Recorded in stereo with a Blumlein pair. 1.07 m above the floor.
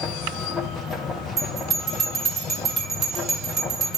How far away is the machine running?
About 1.1 m.